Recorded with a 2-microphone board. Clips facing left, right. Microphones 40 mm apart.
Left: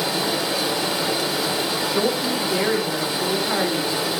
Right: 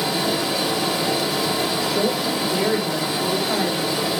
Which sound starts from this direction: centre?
Running water, at 0.0 s.